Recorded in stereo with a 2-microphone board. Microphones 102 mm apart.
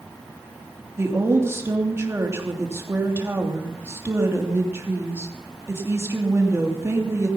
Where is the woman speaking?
25° right (ahead or behind), 3 m.